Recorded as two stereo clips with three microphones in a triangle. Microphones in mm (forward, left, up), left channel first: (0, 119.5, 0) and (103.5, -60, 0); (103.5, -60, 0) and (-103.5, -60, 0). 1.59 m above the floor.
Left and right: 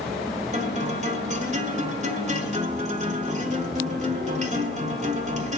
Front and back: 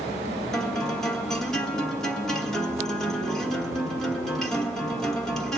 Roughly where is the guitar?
Right.